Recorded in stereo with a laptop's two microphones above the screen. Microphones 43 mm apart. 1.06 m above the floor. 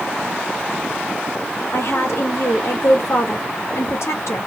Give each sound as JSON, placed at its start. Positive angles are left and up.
{"t": 1.7, "sound": "a woman speaking", "side_deg": 75, "distance_m": 1.0}